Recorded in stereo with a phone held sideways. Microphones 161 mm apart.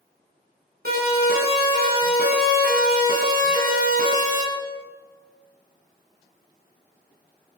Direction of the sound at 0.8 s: 75° right (ahead or behind).